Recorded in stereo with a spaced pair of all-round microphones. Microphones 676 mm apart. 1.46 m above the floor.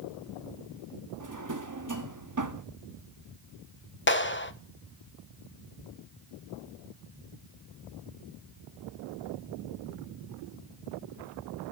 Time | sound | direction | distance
1.2 | a drawer | 30° right (ahead or behind) | 1.0 m
4.1 | a clap | 20° left (ahead or behind) | 0.8 m